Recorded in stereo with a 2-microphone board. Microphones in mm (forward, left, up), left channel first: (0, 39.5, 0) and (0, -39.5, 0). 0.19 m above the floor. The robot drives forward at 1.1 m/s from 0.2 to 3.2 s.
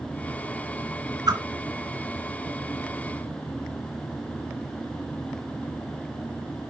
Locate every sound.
1.3 s a whoosh: 55° right (ahead or behind), 3 m